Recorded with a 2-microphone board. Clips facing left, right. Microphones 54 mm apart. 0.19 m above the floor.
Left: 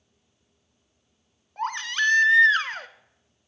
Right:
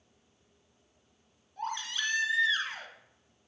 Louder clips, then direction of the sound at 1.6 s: Left 9 dB; 60° left (ahead or behind).